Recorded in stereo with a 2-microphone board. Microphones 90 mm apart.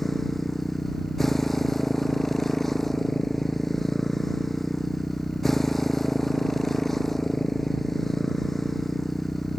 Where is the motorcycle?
5° left (ahead or behind).